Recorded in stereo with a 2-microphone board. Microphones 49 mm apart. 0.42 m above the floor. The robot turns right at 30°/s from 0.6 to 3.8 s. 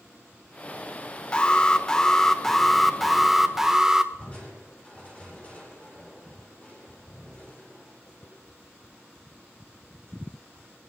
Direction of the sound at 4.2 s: 30° left (ahead or behind).